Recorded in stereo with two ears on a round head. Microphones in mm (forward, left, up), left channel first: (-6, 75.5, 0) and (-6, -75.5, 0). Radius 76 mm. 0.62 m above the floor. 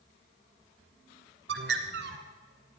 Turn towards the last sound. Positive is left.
turn(degrees=-75)  # may be behind; listen again after turning